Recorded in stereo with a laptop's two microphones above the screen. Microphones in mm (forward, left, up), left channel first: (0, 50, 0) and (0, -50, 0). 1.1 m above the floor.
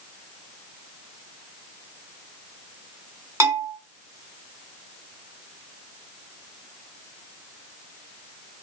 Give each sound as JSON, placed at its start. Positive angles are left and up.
{"t": 3.4, "sound": "a bell", "side_deg": -30, "distance_m": 0.9}